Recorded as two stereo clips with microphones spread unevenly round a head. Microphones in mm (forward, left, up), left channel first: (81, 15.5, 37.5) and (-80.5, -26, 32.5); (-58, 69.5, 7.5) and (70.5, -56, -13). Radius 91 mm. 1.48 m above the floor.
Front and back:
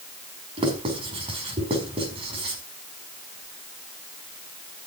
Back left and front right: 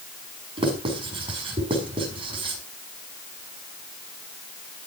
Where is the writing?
110° right, 5.5 m.